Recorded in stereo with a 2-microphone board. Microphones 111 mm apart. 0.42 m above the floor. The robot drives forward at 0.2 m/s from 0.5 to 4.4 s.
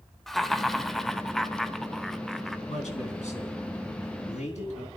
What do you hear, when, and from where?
0.3 s laughter: centre (ahead or behind), 1.1 m
2.7 s a man speaking: 75° left (ahead or behind), 3.5 m